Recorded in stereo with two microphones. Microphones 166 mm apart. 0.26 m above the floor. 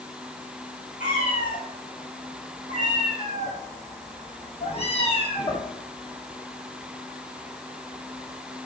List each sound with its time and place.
1.0 s a cat meowing: 55° left (ahead or behind), 4.5 m; by 5.7 s 30° left (ahead or behind), 1.7 m